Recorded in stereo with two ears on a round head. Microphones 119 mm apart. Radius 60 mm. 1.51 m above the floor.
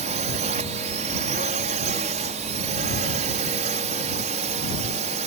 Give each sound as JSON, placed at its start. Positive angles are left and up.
{"t": 0.0, "sound": "a drone", "side_deg": -55}